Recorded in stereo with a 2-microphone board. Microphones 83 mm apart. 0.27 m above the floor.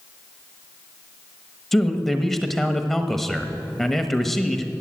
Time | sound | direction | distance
1.7 | a man speaking | 5° left (ahead or behind) | 1.0 m